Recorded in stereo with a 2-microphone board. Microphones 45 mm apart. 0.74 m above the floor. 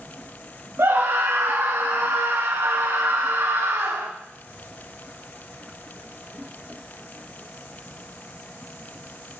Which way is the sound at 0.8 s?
60° right (ahead or behind).